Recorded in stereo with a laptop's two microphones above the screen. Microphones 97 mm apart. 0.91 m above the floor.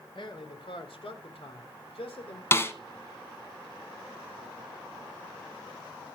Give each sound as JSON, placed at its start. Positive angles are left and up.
{"t": 0.1, "sound": "a man speaking", "side_deg": 60, "distance_m": 3.0}
{"t": 2.5, "sound": "a snare drum", "side_deg": 25, "distance_m": 1.1}